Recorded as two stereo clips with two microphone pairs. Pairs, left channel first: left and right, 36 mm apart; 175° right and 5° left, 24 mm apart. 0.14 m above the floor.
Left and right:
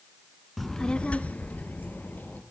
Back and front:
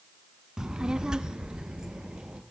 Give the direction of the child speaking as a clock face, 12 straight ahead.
12 o'clock.